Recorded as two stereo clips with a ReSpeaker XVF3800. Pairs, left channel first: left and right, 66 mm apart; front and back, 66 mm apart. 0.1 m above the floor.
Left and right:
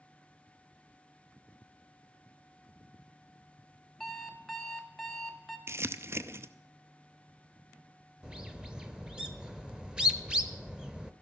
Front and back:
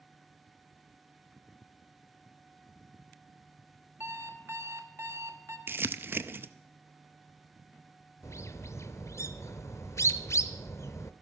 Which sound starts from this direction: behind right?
Crumpling, at 5.7 s.